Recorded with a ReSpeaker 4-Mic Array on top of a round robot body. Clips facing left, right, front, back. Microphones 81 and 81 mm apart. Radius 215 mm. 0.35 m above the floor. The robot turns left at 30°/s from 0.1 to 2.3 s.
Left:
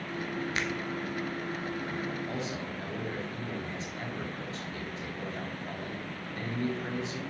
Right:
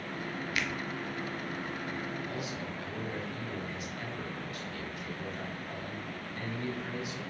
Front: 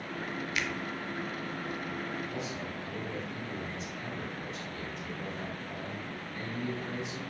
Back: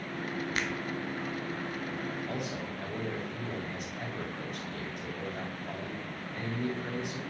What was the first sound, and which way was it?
A finger snap, 140° left.